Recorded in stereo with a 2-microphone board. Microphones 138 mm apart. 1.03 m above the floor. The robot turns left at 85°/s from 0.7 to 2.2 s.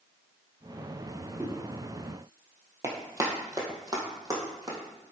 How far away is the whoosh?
About 1.2 m.